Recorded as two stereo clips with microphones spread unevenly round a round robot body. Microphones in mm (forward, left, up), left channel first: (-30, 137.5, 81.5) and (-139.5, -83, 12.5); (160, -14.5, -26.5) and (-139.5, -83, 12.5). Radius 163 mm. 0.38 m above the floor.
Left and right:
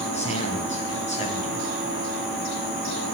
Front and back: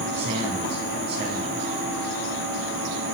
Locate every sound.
0.1 s a man speaking: 130° left, 4 m